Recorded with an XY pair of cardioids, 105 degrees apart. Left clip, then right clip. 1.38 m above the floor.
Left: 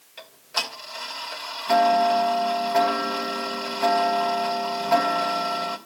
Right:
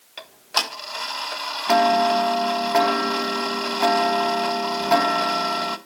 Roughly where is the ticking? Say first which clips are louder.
Right 4 dB; ahead right.